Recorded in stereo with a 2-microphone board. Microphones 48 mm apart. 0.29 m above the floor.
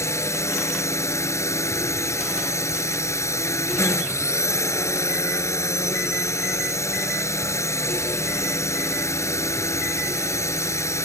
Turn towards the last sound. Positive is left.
turn(degrees=70)  # may be behind; listen again after turning